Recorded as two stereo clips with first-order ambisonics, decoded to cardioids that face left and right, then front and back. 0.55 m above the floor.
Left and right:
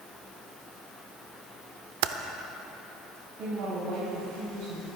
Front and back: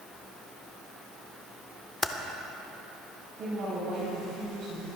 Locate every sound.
2.0 s typing on a keyboard: 80° right, 0.6 m
3.4 s a woman speaking: 125° right, 4 m